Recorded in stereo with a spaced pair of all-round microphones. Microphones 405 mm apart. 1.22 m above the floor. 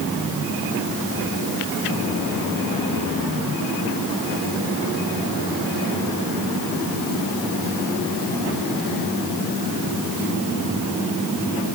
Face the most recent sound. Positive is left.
No sound to turn to.